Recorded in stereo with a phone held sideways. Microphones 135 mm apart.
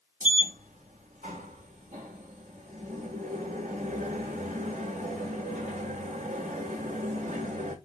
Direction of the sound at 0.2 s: 75° right (ahead or behind).